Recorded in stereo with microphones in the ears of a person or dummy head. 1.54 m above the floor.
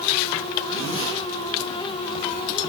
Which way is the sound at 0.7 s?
65° left (ahead or behind).